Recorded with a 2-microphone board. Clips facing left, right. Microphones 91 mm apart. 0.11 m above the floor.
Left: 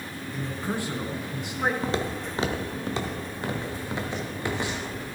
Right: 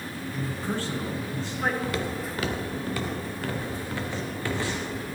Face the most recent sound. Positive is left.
turn(degrees=20)  # may be behind; listen again after turning